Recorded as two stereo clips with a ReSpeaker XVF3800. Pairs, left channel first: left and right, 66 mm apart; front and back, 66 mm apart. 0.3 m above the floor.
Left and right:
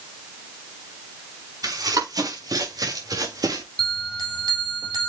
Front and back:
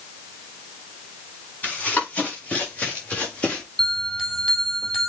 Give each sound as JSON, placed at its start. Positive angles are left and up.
{"t": 1.6, "sound": "running footsteps", "azimuth_deg": -70, "distance_m": 6.0}
{"t": 3.8, "sound": "a bell", "azimuth_deg": -85, "distance_m": 4.0}